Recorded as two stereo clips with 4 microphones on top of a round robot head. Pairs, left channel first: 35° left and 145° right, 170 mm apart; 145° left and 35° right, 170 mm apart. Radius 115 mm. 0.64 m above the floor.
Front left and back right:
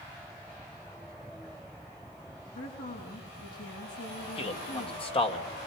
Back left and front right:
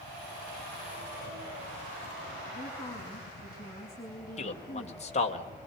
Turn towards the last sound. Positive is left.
turn(degrees=95)